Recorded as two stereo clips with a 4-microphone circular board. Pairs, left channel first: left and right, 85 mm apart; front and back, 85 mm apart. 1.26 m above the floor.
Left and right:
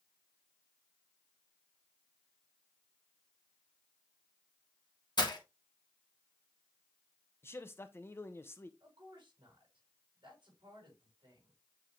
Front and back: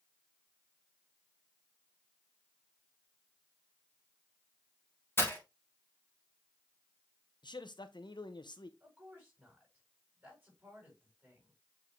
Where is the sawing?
No sawing in this recording.